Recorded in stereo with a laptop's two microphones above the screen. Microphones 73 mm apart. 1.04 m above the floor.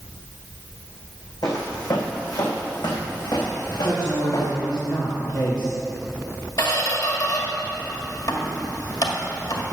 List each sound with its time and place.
1.4 s footsteps: 60° left (ahead or behind), 2.5 m; by 4.5 s 70° left (ahead or behind), 3.5 m
3.8 s a man speaking: 70° left (ahead or behind), 2.0 m
6.6 s a squeak: 60° left (ahead or behind), 1.8 m